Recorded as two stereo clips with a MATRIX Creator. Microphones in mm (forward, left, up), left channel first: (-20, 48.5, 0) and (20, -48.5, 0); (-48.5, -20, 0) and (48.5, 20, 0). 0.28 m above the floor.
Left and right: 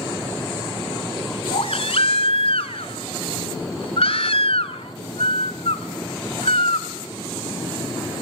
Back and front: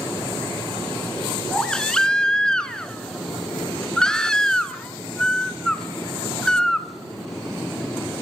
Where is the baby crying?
120° left, 1.3 m.